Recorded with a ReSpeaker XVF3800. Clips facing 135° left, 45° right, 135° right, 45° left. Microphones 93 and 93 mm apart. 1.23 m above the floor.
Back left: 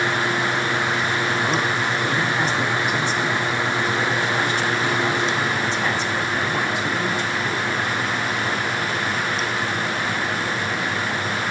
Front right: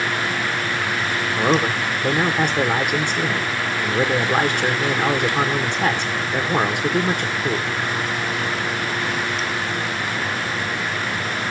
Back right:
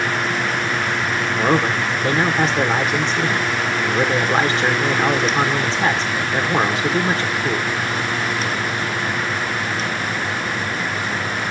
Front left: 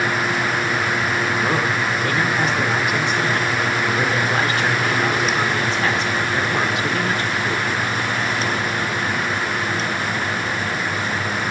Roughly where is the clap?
I don't hear a clap.